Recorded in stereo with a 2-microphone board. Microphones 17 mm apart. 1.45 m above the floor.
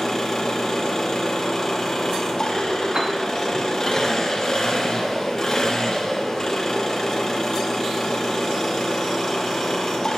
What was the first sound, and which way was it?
An engine running, 30° left (ahead or behind).